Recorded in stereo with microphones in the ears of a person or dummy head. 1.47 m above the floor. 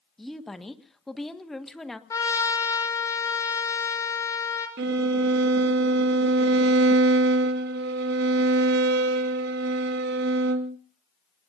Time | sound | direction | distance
0.2 | a woman speaking | centre (ahead or behind) | 1.5 m
2.1 | a trumpet | 15° left (ahead or behind) | 2 m
4.8 | a violin | 60° right (ahead or behind) | 1.3 m